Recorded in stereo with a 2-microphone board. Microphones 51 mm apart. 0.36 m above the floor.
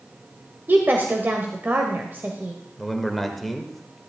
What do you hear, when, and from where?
0.7 s a woman speaking: 45° right (ahead or behind), 1.2 m
2.8 s a man speaking: centre (ahead or behind), 1.2 m